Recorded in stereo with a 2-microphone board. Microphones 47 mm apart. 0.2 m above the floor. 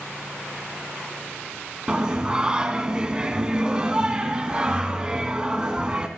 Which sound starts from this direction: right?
Singing, at 1.9 s.